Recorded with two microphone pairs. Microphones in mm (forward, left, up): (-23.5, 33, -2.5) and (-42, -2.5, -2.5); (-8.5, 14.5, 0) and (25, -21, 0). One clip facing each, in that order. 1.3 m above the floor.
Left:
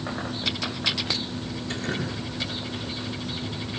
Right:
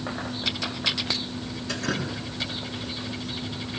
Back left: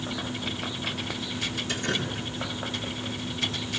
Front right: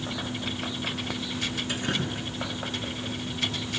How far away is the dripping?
About 8.5 m.